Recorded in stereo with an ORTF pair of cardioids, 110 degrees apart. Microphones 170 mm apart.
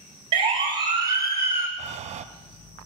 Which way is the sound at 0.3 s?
30° right.